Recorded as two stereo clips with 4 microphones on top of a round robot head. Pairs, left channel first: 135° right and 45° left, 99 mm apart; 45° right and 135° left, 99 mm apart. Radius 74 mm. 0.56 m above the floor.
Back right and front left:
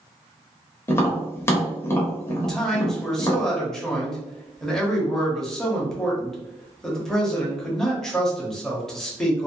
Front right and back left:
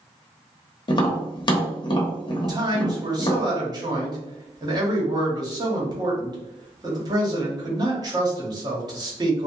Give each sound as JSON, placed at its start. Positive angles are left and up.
{"t": 0.9, "sound": "tapping", "azimuth_deg": -75, "distance_m": 1.0}
{"t": 2.4, "sound": "a man speaking", "azimuth_deg": 140, "distance_m": 1.2}